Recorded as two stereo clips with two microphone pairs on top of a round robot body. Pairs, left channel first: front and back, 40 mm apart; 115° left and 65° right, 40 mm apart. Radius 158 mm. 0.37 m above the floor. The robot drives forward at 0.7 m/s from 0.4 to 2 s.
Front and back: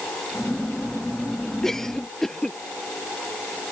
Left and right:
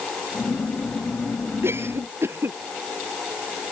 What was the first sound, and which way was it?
A cough, 75° right.